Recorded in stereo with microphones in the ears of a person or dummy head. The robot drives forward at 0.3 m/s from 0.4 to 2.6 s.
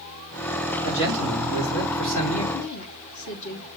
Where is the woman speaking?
75° left (ahead or behind), 1.5 m.